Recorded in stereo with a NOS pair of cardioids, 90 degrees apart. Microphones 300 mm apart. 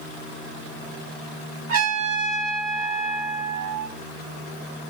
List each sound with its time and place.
1.7 s a trumpet: 70° right, 1.4 m